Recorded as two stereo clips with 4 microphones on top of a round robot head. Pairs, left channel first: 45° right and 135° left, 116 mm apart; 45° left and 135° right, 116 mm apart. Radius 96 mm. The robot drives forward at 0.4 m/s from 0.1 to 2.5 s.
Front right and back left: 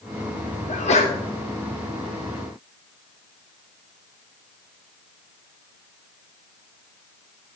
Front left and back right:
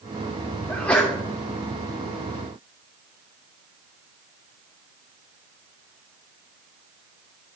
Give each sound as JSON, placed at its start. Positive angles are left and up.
{"t": 0.7, "sound": "a sneeze", "azimuth_deg": -35, "distance_m": 2.5}